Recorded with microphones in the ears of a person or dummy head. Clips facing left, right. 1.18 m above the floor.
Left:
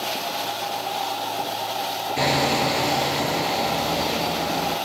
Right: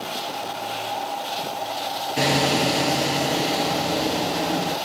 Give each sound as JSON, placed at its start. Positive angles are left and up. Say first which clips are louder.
{"t": 2.2, "sound": "hammering", "louder": "right 1 dB", "side_deg": -15, "distance_m": 6.5}